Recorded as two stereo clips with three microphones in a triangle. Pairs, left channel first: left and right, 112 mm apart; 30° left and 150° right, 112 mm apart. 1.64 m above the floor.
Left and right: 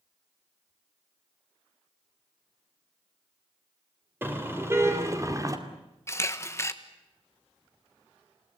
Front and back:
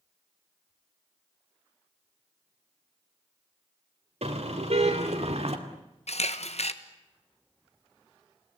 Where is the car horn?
160° right, 3.5 m; by 5.6 s 145° right, 2 m.